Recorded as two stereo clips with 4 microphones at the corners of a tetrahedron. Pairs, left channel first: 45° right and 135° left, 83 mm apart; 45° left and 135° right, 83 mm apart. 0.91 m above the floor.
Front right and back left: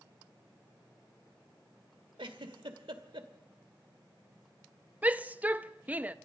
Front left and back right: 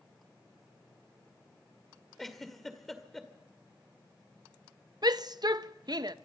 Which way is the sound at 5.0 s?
155° right.